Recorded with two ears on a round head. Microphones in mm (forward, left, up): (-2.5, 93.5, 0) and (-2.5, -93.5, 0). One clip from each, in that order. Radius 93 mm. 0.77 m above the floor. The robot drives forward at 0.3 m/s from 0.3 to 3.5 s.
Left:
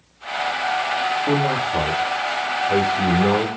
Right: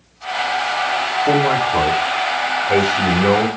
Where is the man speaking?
35° right (ahead or behind), 1.7 m; by 3.5 s 25° right (ahead or behind), 2 m.